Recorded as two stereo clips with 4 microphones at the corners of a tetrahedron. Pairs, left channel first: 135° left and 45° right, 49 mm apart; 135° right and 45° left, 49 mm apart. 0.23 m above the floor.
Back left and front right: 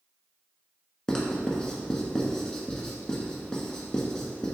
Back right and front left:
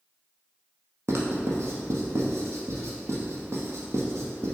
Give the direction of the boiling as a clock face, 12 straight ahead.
No boiling in this recording.